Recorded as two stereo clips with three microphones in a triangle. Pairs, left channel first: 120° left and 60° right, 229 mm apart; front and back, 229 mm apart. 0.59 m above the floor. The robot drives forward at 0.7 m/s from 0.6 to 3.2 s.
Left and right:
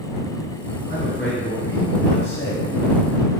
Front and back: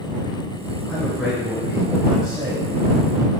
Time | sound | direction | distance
0.9 | a man speaking | 85° left | 2 m